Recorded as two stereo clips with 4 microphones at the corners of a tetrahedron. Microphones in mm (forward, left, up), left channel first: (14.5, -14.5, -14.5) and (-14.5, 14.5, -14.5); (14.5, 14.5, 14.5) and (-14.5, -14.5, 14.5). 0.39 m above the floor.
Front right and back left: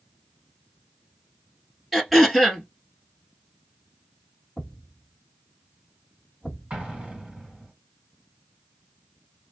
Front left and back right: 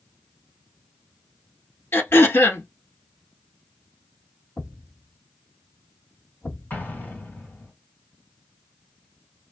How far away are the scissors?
No scissors in this recording.